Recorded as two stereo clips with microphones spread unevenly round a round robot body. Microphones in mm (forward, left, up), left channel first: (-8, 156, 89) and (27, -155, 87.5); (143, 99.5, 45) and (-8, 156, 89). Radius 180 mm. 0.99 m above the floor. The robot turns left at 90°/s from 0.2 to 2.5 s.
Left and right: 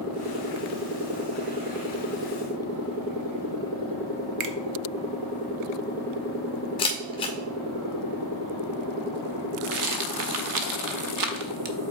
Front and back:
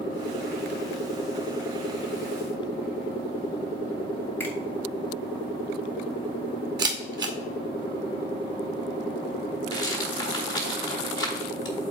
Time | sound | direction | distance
4.4 | a finger snap | 85° right | 0.8 m
6.8 | a camera shutter | 170° left | 0.9 m
9.7 | a rattle | 60° right | 0.6 m